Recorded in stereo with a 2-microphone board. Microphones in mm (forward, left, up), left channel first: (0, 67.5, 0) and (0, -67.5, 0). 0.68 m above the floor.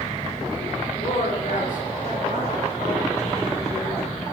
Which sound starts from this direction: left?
A woman speaking, at 0.9 s.